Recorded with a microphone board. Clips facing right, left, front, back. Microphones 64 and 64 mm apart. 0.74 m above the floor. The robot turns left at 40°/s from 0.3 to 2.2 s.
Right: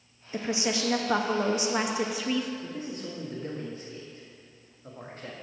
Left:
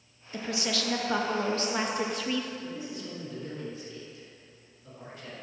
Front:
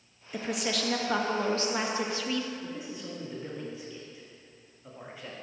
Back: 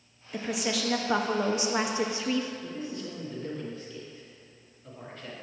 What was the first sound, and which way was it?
A woman speaking, 85° right.